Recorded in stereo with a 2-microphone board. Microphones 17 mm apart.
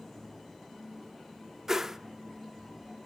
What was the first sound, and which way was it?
A whoosh, 25° right (ahead or behind).